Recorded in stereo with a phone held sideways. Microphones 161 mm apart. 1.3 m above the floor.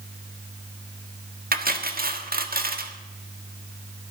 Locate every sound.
1.5 s cutlery clinking: 60° right (ahead or behind), 1.4 m